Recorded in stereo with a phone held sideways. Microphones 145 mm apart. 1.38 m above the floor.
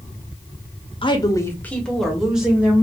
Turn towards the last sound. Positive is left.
turn(degrees=-10)  # may be behind; listen again after turning